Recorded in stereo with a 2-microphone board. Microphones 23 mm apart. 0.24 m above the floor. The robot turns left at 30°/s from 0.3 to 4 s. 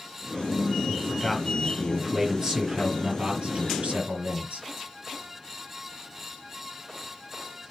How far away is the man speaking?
About 5 m.